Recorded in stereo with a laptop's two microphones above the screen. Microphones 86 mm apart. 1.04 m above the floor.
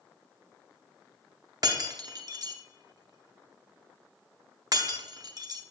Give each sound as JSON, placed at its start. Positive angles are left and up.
{"t": 1.6, "sound": "breaking glass", "side_deg": -50, "distance_m": 0.7}